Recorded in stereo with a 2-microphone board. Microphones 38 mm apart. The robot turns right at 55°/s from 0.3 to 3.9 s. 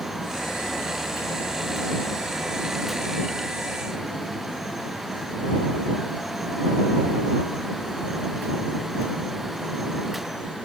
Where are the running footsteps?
No running footsteps in this recording.